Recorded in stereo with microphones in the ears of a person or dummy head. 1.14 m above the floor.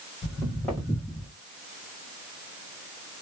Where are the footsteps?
20° left (ahead or behind), 1.7 m; by 1.3 s 5° right (ahead or behind), 1.8 m.